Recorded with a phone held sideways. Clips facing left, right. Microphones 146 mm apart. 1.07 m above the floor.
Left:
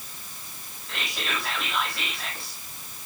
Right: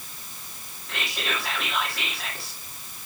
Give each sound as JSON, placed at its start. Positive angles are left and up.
{"t": 0.9, "sound": "whispering", "side_deg": 0, "distance_m": 1.7}